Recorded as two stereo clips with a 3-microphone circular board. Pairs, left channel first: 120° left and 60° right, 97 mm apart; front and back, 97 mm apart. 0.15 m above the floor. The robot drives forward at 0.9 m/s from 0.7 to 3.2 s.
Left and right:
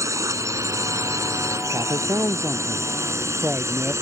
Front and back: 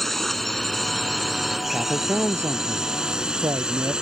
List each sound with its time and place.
0.0 s a drone: 85° right; by 4.0 s 100° right
1.7 s a man speaking: 105° right; by 3.9 s 130° right